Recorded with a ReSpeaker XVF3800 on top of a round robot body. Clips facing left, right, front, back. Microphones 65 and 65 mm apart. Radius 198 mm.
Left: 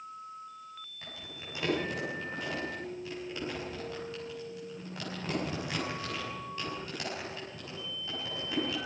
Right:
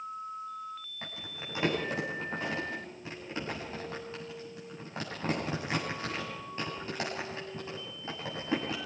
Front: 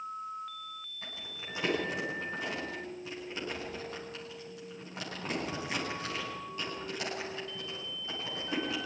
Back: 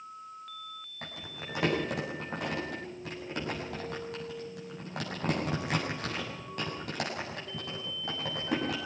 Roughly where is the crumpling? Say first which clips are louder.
Right 3 dB, back 6 dB; behind right.